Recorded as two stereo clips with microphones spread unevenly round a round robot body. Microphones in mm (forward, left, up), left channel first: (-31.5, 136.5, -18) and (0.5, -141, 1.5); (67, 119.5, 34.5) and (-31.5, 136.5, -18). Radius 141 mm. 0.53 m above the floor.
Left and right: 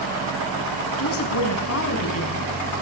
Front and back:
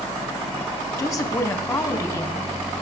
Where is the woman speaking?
55° left, 4.5 m.